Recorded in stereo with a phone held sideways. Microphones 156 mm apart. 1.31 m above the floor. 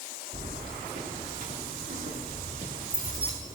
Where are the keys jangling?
65° right (ahead or behind), 2.5 m.